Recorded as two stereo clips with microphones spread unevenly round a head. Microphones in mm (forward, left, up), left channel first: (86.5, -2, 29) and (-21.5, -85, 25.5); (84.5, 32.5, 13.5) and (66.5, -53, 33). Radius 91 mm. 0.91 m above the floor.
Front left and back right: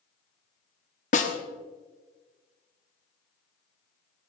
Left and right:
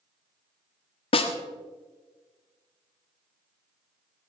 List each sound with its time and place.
1.1 s a snare drum: 85° left, 1.2 m